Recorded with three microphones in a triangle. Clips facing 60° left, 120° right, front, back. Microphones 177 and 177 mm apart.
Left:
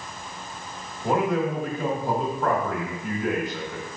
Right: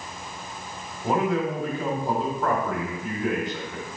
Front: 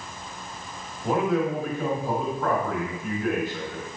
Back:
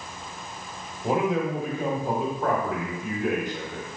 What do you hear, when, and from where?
1.0 s a man speaking: 140° left, 0.9 m